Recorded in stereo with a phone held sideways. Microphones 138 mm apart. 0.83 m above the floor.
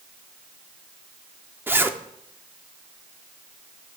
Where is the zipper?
15° right (ahead or behind), 0.6 m.